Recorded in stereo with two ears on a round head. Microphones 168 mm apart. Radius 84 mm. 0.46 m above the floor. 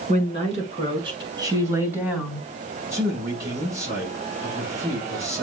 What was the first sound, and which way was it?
A woman speaking, 40° right (ahead or behind).